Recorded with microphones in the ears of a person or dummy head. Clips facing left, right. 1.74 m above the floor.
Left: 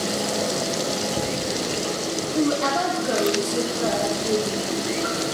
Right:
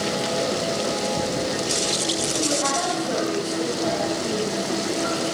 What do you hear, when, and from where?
2.4 s a woman speaking: 60° left (ahead or behind), 1.2 m